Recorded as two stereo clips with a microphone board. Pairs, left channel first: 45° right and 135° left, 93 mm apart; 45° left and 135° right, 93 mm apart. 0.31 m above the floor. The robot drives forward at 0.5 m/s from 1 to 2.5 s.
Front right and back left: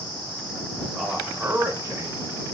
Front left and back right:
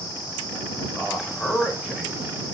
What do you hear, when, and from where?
1.0 s a man speaking: 70° left, 0.9 m; by 2.3 s 155° left, 1.1 m